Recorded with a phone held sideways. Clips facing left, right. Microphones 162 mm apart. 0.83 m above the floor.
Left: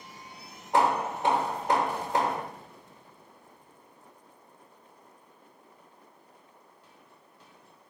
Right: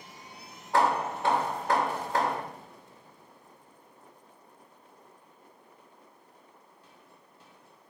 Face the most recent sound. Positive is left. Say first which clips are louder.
# left 1 dB
turn(degrees=20)  # may be behind; listen again after turning